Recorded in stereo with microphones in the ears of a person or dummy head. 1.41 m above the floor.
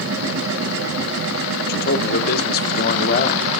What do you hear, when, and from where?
0.0 s a machine running: 80° right, 1.9 m
1.7 s a man speaking: 60° left (ahead or behind), 1.0 m